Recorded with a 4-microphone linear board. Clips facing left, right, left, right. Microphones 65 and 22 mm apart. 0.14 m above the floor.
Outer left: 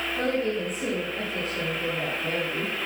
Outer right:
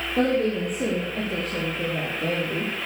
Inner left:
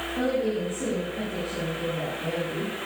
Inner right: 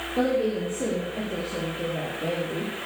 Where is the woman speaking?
70° right (ahead or behind), 4.5 m.